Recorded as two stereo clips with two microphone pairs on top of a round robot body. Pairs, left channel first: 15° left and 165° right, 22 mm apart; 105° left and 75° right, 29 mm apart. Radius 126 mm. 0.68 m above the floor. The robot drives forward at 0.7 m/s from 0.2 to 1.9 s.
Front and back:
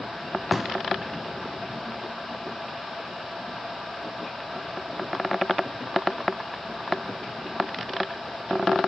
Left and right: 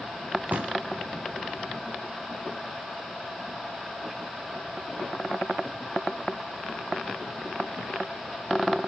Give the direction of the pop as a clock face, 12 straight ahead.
3 o'clock.